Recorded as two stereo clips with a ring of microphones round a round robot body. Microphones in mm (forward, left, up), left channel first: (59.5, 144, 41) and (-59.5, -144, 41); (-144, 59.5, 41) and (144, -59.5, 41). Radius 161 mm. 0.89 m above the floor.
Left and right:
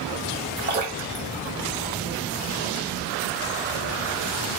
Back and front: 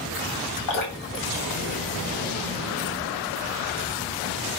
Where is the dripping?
175° right, 3 m.